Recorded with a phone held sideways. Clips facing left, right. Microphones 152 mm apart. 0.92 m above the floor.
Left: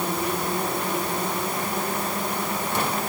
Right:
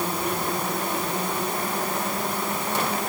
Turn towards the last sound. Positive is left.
No sound to turn to.